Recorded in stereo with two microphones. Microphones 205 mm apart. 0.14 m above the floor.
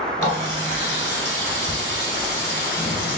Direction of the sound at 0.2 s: 10° left (ahead or behind).